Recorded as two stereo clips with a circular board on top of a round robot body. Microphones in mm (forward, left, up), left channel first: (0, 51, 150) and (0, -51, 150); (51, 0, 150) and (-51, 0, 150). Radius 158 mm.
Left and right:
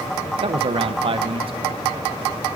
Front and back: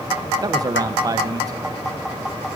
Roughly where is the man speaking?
Behind right.